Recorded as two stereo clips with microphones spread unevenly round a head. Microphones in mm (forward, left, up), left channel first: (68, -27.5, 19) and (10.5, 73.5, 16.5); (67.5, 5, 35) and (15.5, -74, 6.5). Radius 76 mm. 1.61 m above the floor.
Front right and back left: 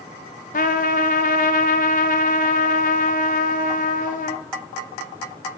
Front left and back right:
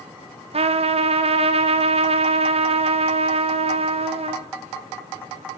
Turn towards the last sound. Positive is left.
turn(degrees=-100)